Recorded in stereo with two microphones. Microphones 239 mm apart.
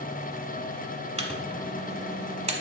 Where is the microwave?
25° right (ahead or behind), 1.1 m.